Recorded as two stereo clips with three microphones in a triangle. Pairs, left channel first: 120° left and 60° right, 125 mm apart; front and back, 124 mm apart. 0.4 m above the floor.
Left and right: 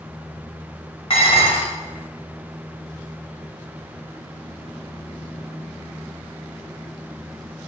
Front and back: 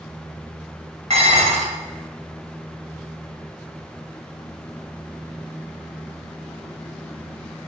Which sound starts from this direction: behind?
Dishes clattering, at 1.1 s.